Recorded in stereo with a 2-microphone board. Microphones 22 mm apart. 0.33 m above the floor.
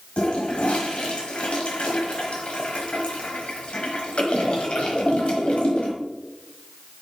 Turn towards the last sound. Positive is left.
turn(degrees=60)  # may be behind; listen again after turning